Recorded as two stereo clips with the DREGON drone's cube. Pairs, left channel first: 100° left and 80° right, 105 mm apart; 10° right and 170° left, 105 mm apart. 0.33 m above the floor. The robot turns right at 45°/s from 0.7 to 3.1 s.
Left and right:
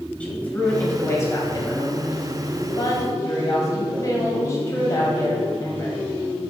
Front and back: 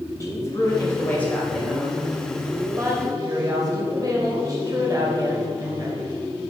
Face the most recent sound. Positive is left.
turn(degrees=140)